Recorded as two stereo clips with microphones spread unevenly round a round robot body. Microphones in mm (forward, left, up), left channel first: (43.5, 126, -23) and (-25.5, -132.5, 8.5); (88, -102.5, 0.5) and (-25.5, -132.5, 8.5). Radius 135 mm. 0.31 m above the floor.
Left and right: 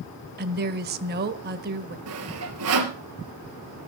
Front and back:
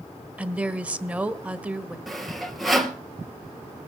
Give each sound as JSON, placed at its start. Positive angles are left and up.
{"t": 0.4, "sound": "a woman speaking", "azimuth_deg": -90, "distance_m": 1.5}
{"t": 2.1, "sound": "sawing", "azimuth_deg": -75, "distance_m": 3.0}